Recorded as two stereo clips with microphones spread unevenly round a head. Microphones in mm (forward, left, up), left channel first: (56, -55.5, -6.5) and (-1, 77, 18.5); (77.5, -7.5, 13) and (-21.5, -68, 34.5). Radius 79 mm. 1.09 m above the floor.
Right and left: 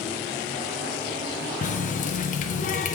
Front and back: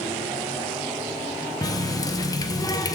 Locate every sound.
1.6 s a running tap: 30° right, 0.6 m